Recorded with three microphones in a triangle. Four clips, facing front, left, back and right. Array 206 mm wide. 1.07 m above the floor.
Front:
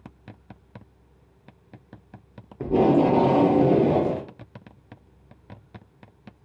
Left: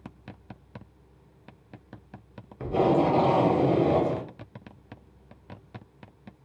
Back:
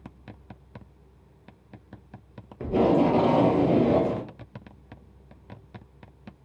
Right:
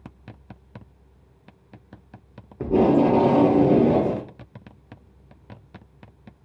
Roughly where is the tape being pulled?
Ahead right.